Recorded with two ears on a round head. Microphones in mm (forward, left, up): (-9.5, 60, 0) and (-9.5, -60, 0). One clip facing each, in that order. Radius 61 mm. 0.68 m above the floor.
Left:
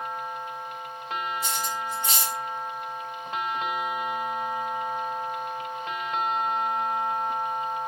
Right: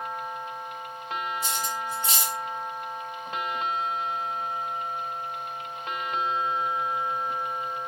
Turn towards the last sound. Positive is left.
turn(degrees=-25)  # may be behind; listen again after turning